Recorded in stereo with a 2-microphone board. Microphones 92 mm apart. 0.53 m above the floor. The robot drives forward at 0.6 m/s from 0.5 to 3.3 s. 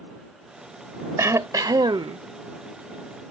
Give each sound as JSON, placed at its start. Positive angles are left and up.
{"t": 1.2, "sound": "throat clearing", "side_deg": -35}